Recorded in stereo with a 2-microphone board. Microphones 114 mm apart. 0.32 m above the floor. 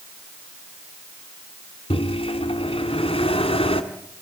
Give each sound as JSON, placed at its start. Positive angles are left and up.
{"t": 1.9, "sound": "a microwave", "side_deg": 55, "distance_m": 2.0}